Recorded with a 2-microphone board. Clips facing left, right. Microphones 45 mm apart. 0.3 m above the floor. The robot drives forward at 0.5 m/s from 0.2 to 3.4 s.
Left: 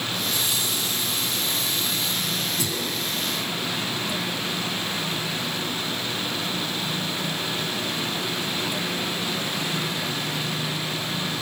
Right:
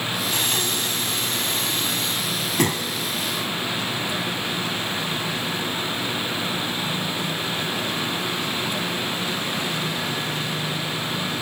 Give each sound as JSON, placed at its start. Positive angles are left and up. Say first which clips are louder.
{"t": 0.3, "sound": "breathing", "louder": "right 3 dB", "side_deg": -60, "distance_m": 2.0}